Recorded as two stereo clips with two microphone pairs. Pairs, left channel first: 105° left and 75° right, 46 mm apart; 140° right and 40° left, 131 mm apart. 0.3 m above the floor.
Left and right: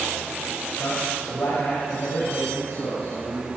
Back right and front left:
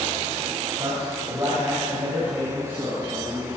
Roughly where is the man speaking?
Left.